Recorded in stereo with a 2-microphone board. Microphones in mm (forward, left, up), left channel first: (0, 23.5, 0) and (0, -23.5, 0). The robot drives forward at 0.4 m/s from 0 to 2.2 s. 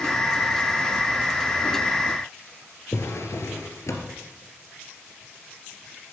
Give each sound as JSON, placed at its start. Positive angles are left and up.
{"t": 2.9, "sound": "a drawer", "side_deg": 75, "distance_m": 2.5}